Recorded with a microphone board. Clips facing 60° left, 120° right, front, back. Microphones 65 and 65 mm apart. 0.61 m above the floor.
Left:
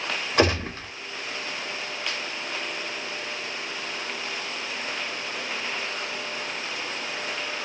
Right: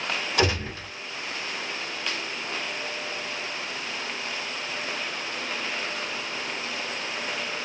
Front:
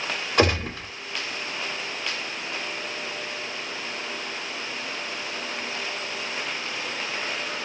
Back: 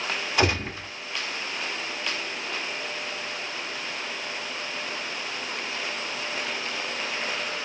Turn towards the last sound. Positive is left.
turn(degrees=30)